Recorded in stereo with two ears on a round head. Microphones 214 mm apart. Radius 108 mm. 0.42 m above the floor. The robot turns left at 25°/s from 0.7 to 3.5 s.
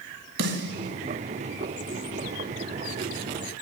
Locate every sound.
0.4 s a snare drum: 55° right (ahead or behind), 1.6 m; by 0.9 s 50° right (ahead or behind), 1.6 m